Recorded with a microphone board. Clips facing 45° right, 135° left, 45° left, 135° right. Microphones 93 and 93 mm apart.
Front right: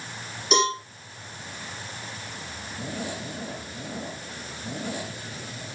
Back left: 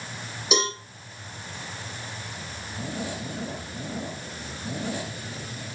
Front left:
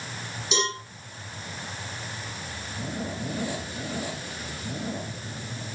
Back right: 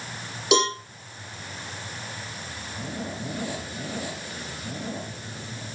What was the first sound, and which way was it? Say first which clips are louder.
A cowbell: front right 4 dB, back right 7 dB; 140° right.